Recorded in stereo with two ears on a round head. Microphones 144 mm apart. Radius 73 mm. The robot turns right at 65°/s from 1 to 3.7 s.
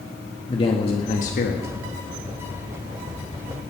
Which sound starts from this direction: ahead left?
A man speaking, at 0.5 s.